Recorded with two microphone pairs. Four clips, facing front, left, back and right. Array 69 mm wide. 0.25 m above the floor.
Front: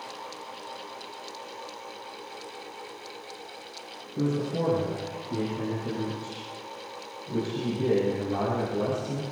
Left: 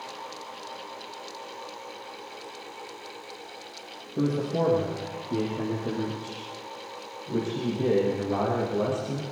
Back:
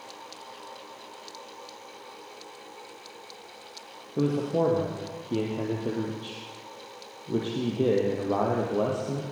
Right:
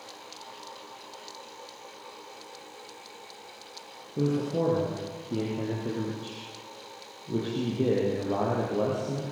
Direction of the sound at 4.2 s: 160° left.